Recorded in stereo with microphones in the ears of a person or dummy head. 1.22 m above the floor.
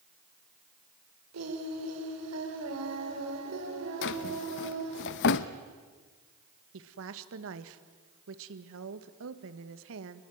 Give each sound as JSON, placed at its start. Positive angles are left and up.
{"t": 1.3, "sound": "singing", "side_deg": -85, "distance_m": 4.0}
{"t": 4.0, "sound": "a drawer", "side_deg": 55, "distance_m": 0.8}
{"t": 6.7, "sound": "a woman speaking", "side_deg": -70, "distance_m": 1.7}